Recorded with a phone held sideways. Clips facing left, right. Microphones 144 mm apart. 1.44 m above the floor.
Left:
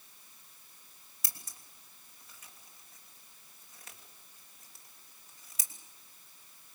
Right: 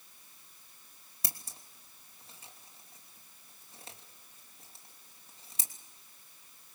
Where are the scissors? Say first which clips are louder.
Right 4 dB; 30° right (ahead or behind), 3 m.